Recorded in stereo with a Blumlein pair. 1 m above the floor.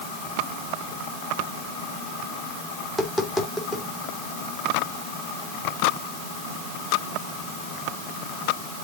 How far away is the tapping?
About 2.5 m.